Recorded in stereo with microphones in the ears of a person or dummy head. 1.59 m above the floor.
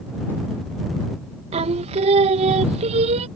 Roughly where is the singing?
Right.